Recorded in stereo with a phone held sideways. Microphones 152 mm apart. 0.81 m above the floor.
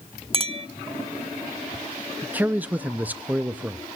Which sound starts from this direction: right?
A clink, at 0.3 s.